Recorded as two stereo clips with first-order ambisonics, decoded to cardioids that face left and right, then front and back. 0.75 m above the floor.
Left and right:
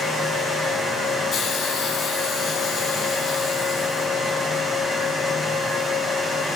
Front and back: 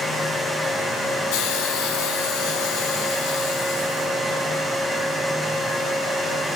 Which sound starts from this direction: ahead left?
A hiss, at 1.3 s.